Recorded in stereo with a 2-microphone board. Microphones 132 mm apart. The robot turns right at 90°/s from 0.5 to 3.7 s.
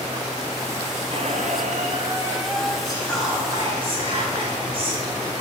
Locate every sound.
1.1 s a squeak: 130° right, 0.7 m; by 2.8 s 15° left, 0.7 m
2.9 s whispering: 150° left, 3 m; by 5.4 s 135° right, 3 m